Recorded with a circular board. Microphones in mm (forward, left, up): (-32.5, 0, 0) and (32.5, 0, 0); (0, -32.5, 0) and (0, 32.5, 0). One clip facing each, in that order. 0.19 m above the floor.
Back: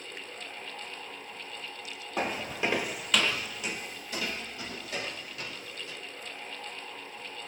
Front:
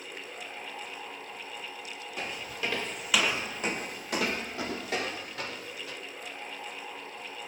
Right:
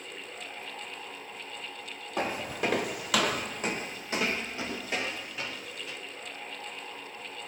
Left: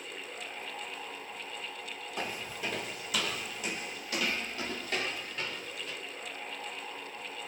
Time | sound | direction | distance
2.2 | footsteps | 130° right | 0.8 m